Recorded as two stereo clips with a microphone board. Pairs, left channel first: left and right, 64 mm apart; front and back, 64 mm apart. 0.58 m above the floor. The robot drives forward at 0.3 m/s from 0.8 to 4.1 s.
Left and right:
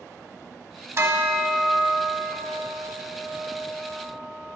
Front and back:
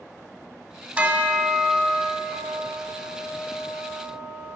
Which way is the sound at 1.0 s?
120° right.